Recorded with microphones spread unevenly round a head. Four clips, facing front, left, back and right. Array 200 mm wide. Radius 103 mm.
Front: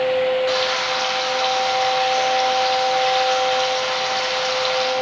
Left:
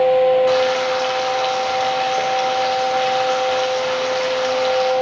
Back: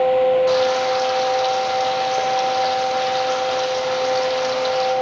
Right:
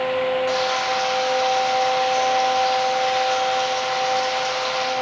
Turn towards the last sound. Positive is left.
turn(degrees=135)